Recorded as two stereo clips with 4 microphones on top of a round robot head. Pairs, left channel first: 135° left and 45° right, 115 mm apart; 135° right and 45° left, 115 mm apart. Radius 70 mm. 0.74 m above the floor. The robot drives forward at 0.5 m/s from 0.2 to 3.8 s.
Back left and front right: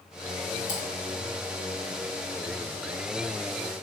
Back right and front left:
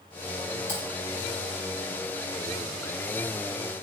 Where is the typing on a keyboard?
160° left, 3.5 m.